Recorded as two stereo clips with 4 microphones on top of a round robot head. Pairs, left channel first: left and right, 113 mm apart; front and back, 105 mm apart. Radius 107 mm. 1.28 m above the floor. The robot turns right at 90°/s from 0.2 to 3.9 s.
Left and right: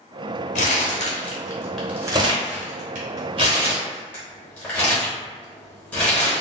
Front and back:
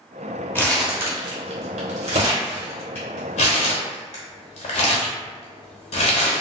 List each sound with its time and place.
0.6 s crumpling: 70° left, 1.0 m; by 6.4 s 10° left, 1.0 m